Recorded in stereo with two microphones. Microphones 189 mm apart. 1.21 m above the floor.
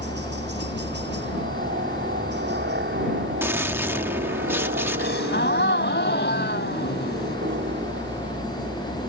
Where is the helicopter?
65° right (ahead or behind).